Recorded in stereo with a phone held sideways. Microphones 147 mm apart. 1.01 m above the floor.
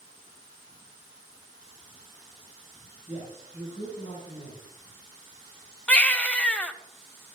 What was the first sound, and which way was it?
A man speaking, 45° left (ahead or behind).